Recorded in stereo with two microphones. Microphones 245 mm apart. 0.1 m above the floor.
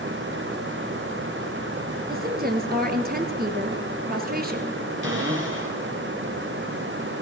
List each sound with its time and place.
2.1 s a woman speaking: 40° right (ahead or behind), 1.6 m
5.0 s a cupboard door: 55° right (ahead or behind), 3 m